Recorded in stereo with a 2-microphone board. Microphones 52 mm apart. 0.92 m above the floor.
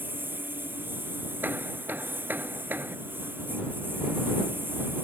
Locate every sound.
0.0 s a lawn mower: 40° right (ahead or behind)
1.4 s hammering: 40° right (ahead or behind)